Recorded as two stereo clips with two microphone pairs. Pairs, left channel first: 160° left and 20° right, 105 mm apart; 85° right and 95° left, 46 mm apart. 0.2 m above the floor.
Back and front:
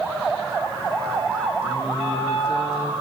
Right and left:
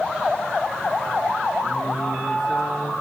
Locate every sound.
1.6 s singing: 175° right, 5.5 m